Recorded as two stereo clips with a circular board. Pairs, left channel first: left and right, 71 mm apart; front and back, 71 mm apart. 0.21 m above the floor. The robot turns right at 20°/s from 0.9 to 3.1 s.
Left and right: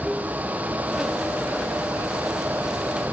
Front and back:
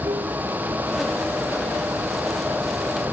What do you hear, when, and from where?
0.0 s running water: 175° right; by 3.1 s 130° right